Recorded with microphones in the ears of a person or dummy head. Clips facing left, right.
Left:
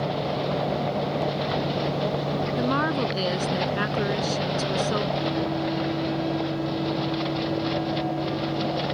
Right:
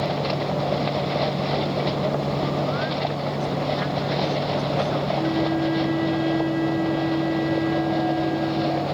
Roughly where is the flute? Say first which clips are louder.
Right 4 dB; right.